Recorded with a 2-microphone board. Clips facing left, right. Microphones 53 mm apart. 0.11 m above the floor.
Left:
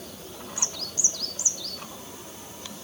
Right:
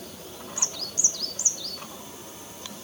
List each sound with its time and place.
Only background noise.